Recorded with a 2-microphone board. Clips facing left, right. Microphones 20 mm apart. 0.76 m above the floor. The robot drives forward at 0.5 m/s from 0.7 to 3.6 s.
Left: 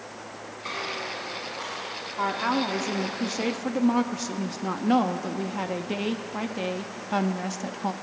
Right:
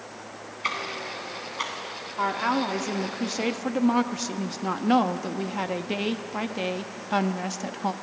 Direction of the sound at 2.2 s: 10° right (ahead or behind).